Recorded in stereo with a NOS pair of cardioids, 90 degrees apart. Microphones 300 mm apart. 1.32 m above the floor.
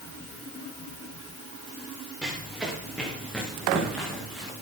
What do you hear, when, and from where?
2.2 s running footsteps: straight ahead, 9.5 m